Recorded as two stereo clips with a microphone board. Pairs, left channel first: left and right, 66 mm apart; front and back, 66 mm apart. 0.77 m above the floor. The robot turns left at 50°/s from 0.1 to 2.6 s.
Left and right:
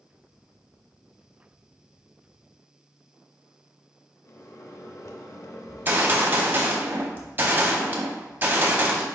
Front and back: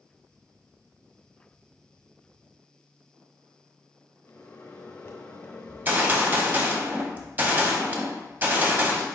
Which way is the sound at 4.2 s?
55° left.